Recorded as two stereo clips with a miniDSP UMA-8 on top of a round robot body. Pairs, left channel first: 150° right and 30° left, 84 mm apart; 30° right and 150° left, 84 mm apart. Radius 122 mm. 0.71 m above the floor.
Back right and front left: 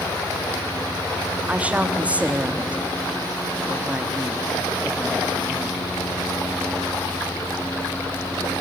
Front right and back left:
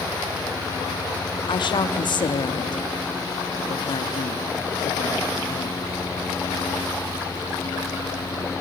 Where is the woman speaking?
45° right, 1.4 m.